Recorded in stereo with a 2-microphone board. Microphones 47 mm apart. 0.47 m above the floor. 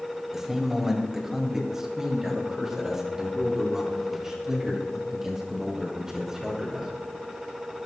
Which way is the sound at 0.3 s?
10° right (ahead or behind).